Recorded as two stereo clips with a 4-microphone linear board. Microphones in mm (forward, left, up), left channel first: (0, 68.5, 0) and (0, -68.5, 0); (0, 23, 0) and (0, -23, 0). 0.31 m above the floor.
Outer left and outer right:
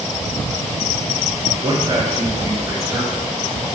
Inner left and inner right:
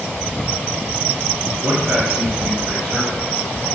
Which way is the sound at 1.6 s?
40° right (ahead or behind).